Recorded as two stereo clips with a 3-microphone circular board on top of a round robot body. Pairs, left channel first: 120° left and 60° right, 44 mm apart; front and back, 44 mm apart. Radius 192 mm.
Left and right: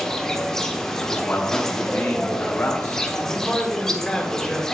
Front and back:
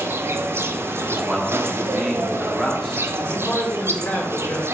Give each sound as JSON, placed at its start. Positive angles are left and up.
{"t": 0.0, "sound": "an insect", "azimuth_deg": -165, "distance_m": 1.0}
{"t": 1.1, "sound": "a man speaking", "azimuth_deg": 95, "distance_m": 1.6}
{"t": 3.2, "sound": "a man speaking", "azimuth_deg": 40, "distance_m": 2.0}